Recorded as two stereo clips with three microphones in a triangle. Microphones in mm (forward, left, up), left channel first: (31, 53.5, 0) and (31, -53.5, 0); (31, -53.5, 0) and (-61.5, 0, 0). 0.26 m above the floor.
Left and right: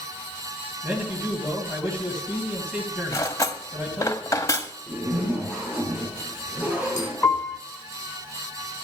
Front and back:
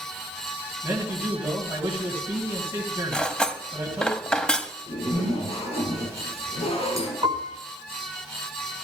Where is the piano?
155° left, 1.9 m.